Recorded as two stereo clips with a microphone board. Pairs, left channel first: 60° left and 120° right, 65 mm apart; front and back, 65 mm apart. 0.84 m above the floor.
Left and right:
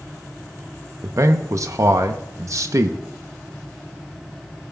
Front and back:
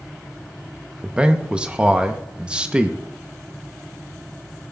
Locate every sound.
1.0 s a man speaking: 110° right, 0.7 m